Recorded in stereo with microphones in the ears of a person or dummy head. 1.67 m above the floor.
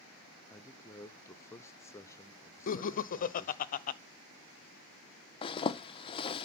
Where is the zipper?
25° left (ahead or behind), 0.9 m.